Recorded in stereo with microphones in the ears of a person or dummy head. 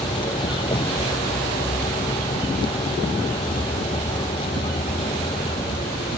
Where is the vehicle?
25° left (ahead or behind).